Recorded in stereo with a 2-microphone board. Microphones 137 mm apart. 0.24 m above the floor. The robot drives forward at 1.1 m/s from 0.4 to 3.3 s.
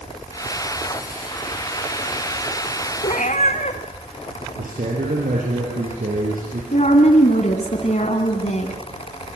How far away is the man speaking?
About 5 m.